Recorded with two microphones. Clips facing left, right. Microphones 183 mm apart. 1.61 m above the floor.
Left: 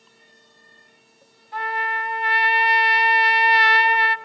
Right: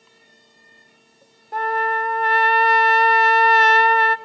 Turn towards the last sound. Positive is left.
turn(degrees=-45)  # may be behind; listen again after turning